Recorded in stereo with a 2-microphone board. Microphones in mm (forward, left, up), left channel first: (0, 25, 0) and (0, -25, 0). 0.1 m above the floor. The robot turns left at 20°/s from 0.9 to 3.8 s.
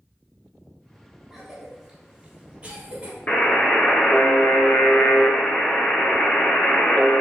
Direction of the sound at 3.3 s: 25° left (ahead or behind).